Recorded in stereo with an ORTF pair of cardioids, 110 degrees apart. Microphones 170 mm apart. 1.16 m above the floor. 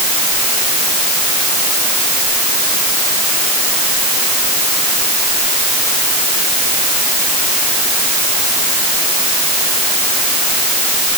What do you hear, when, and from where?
Only background noise.